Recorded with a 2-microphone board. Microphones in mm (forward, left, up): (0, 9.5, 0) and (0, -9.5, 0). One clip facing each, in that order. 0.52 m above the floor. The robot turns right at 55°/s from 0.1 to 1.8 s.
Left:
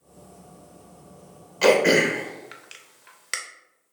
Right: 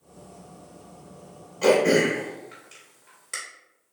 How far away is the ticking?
No ticking in this recording.